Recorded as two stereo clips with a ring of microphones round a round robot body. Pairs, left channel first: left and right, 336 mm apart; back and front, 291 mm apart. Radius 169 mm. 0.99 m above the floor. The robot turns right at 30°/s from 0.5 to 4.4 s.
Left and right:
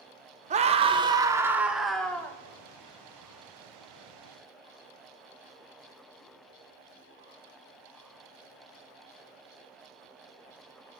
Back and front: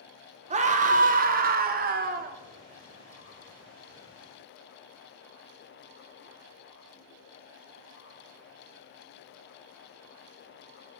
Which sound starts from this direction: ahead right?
A scream, at 0.5 s.